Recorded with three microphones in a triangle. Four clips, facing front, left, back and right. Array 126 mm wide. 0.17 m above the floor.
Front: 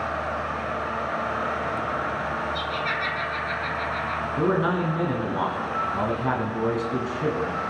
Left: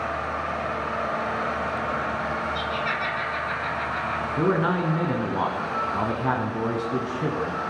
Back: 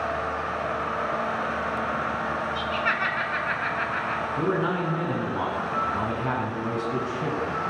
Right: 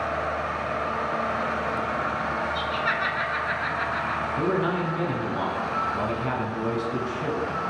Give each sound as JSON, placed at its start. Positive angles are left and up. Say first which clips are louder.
{"t": 2.5, "sound": "laughter", "louder": "right 1 dB, back 1 dB", "azimuth_deg": -145, "distance_m": 1.8}
{"t": 4.4, "sound": "a man speaking", "louder": "left 3 dB, front 3 dB", "azimuth_deg": 70, "distance_m": 1.4}